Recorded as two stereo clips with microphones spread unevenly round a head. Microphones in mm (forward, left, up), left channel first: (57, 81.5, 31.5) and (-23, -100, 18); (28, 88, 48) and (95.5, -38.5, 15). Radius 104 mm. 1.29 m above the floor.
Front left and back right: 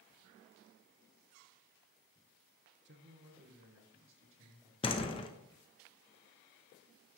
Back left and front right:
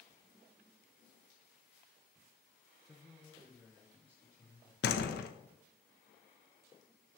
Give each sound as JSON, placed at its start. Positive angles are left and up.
{"t": 2.9, "sound": "a man speaking", "azimuth_deg": -150, "distance_m": 0.9}
{"t": 4.8, "sound": "a door slam", "azimuth_deg": 130, "distance_m": 0.9}